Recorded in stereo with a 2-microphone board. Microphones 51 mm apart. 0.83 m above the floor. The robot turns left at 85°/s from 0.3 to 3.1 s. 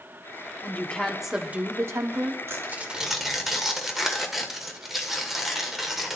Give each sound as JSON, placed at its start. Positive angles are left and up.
{"t": 0.6, "sound": "a woman speaking", "azimuth_deg": 45, "distance_m": 1.8}
{"t": 2.5, "sound": "tearing paper", "azimuth_deg": -125, "distance_m": 1.7}